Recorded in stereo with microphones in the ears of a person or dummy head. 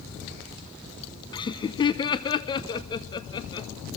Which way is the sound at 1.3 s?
20° left (ahead or behind).